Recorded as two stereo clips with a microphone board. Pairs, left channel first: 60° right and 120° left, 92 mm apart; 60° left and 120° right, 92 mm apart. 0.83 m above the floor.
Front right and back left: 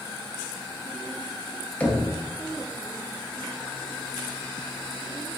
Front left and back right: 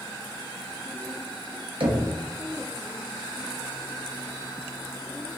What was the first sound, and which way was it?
Knocking, 130° right.